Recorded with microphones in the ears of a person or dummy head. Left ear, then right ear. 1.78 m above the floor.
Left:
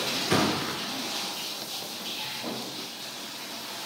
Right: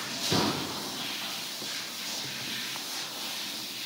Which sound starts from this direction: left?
A thud, at 0.3 s.